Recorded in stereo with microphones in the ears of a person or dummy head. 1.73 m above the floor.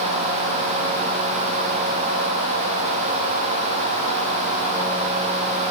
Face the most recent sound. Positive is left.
No sound to turn to.